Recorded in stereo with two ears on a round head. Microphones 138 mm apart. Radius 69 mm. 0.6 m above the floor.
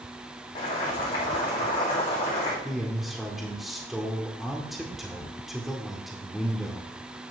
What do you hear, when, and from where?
0.6 s boiling: 30° left (ahead or behind), 7 m
2.6 s a man speaking: centre (ahead or behind), 1.7 m